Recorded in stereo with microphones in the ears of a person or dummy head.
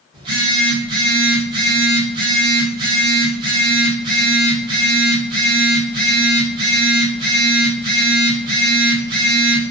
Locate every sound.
0.1 s a phone buzzing: 25° right (ahead or behind), 1.0 m